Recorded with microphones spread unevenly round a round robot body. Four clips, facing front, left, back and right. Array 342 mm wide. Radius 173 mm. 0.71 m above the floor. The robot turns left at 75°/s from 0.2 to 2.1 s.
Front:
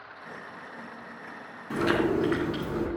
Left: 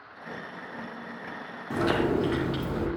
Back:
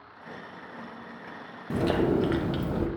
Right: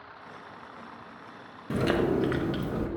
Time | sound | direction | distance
1.7 | chewing | 140° right | 0.7 m